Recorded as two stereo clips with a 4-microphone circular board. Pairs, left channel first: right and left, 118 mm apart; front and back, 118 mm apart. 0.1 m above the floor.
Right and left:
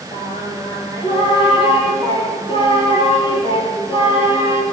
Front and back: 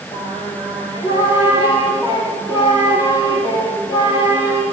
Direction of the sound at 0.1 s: 45° right.